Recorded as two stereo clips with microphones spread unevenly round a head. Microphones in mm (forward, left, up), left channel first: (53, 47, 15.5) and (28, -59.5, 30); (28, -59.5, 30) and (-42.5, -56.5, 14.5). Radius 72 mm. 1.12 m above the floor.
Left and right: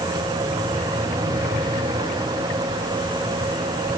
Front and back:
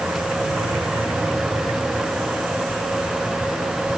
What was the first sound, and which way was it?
Only background noise.